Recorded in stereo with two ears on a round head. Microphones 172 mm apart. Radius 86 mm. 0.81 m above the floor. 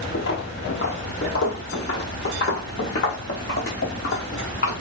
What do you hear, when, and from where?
0.1 s footsteps: 60° left (ahead or behind), 1.5 m; by 4.8 s 50° left (ahead or behind), 4.5 m